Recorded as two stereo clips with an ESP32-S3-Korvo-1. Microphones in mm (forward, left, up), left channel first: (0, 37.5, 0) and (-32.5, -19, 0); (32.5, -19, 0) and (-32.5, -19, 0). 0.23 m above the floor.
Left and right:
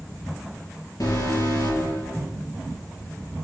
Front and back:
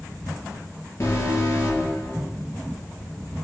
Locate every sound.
1.0 s an alarm: 45° left, 4.5 m